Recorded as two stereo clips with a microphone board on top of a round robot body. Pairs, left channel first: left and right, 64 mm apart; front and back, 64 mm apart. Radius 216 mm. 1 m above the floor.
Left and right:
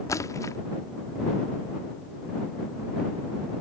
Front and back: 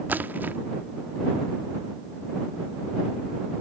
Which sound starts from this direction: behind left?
A splash, at 0.1 s.